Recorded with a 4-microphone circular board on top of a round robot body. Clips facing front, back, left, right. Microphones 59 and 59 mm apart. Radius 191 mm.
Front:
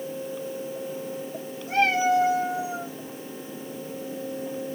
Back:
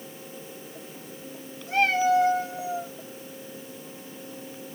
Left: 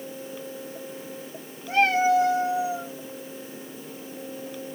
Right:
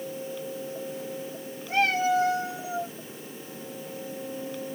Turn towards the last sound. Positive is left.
turn(degrees=95)